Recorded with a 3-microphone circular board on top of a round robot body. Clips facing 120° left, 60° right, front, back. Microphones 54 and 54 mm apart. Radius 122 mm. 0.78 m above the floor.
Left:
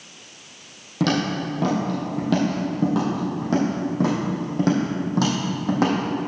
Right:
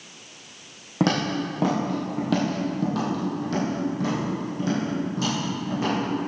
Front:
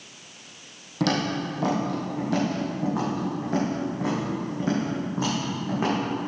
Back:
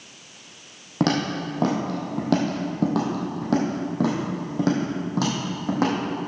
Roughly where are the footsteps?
Behind right.